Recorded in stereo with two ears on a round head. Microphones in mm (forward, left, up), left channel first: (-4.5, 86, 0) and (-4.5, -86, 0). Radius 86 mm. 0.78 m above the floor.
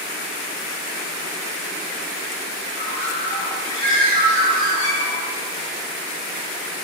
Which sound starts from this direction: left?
A bird, at 2.8 s.